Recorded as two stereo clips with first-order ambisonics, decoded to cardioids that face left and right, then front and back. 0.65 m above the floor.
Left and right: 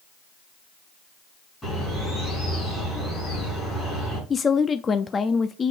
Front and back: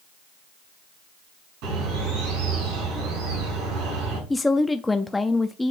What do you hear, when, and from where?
1.6 s a bird: 170° left, 7 m
4.3 s a woman speaking: 70° left, 0.5 m